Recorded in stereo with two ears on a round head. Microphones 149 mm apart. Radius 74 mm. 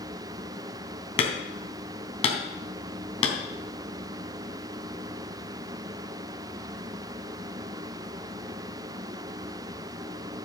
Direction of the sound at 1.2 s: 40° left (ahead or behind).